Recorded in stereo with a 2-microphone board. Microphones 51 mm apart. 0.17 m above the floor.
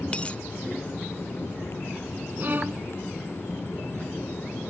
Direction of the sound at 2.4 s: 40° right (ahead or behind).